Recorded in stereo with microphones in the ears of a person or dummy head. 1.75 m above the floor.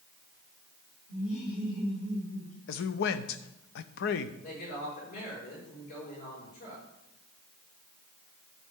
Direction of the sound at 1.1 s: 60° left (ahead or behind).